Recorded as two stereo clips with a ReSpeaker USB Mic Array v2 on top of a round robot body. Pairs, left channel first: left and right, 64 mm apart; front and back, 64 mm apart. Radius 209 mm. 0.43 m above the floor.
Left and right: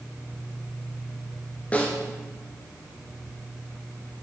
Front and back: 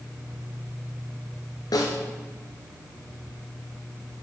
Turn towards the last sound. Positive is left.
turn(degrees=20)